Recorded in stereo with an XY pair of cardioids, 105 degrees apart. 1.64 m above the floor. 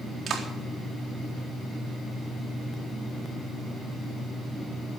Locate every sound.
0.3 s a clap: 55° right, 4 m